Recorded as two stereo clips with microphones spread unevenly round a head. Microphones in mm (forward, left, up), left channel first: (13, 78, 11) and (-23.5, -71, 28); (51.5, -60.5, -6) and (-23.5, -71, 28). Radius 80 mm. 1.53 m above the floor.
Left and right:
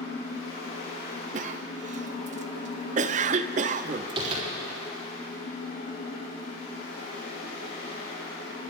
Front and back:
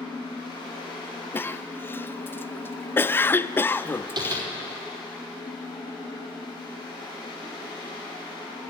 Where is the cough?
55° right, 0.5 m.